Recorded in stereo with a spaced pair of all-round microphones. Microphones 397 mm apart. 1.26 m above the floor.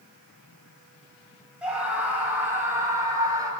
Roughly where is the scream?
Centre.